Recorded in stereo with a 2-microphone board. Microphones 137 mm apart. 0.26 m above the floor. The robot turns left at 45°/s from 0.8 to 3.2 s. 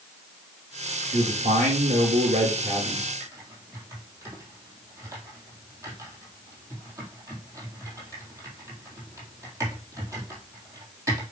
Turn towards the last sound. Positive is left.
turn(degrees=-25)  # may be behind; listen again after turning